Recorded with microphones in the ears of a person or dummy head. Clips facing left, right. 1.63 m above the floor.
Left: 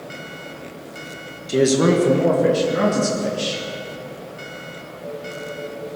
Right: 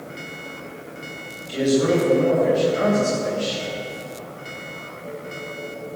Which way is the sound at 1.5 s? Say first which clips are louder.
Left 3 dB; 55° left (ahead or behind).